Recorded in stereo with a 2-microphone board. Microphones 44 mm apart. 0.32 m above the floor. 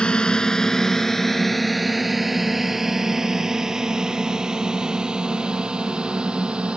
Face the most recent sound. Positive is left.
turn(degrees=-25)  # may be behind; listen again after turning